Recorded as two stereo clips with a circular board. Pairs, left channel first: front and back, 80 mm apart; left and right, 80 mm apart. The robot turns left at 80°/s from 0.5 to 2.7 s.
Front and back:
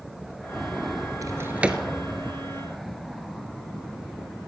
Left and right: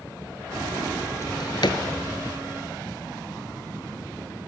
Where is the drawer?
140° left, 1.0 m; by 1.8 s 90° left, 1.0 m.